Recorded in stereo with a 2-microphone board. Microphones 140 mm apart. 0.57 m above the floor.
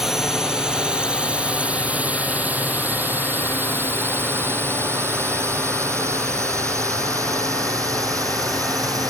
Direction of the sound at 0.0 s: 5° right (ahead or behind).